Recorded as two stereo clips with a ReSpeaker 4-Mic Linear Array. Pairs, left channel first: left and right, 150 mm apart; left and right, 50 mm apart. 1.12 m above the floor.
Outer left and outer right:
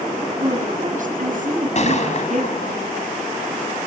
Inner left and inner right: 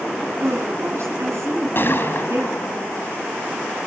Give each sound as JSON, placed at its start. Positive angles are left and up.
{"t": 0.4, "sound": "a woman speaking", "side_deg": -60, "distance_m": 8.0}
{"t": 1.8, "sound": "a gunshot", "side_deg": 50, "distance_m": 3.5}